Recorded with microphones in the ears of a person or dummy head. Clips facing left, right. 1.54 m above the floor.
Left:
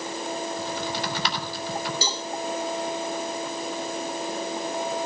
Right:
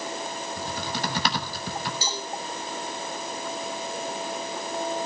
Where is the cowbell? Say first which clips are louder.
Left 2 dB; 65° left (ahead or behind), 3.5 m.